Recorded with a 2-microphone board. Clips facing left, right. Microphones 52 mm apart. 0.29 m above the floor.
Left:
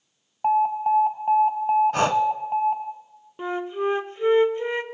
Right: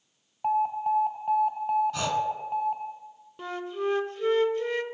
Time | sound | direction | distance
0.4 | an alarm | 25° left (ahead or behind) | 0.9 m
1.9 | breathing | 55° left (ahead or behind) | 0.6 m
3.4 | a flute | 25° left (ahead or behind) | 0.5 m